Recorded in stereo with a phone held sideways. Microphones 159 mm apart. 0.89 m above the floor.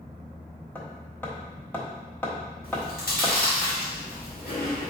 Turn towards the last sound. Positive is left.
turn(degrees=70)  # may be behind; listen again after turning